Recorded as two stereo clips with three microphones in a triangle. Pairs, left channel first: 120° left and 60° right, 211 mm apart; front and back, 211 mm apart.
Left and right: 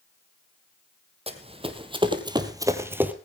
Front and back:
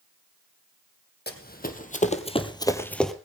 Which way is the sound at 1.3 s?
5° right.